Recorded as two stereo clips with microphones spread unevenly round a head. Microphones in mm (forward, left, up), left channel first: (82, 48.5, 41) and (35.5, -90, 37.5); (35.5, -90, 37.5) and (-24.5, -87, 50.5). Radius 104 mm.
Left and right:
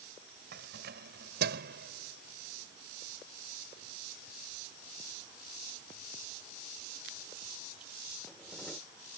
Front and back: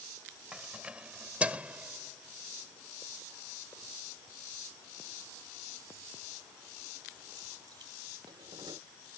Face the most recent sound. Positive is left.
turn(degrees=155)